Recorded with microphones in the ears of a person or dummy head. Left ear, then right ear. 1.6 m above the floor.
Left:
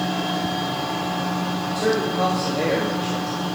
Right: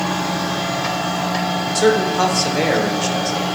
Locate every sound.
1.8 s a man speaking: 60° right (ahead or behind), 1.1 m